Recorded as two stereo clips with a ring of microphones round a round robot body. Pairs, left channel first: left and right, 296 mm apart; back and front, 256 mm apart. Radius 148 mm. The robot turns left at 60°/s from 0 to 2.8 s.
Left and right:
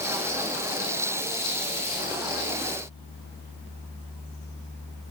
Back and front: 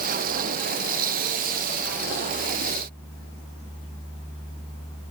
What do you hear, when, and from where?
Only background noise.